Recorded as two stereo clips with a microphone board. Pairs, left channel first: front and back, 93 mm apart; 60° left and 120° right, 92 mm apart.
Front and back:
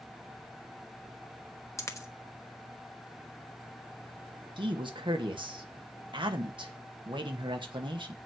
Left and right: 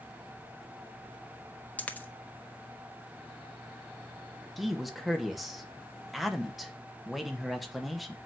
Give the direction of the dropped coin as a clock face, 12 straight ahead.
12 o'clock.